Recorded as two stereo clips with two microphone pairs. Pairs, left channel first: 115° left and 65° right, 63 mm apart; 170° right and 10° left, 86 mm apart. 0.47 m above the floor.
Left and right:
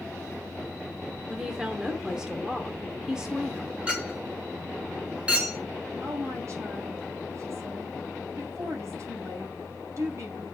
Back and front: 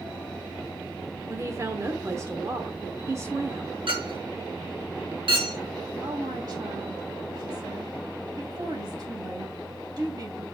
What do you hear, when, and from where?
1.3 s a woman speaking: 5° left, 1.1 m
3.9 s a clink: 5° left, 3.5 m
6.0 s a woman speaking: 30° right, 3 m